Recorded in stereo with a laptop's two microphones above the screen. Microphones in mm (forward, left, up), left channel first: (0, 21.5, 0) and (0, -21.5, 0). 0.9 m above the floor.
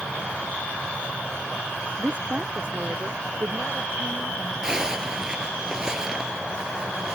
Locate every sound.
2.0 s a woman speaking: 25° right (ahead or behind); by 4.5 s 65° right (ahead or behind)
4.6 s a zipper: 15° right (ahead or behind)